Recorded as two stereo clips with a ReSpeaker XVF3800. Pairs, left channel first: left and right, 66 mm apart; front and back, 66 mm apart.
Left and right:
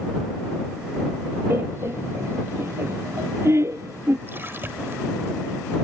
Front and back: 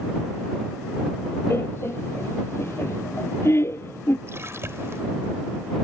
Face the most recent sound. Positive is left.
turn(degrees=-140)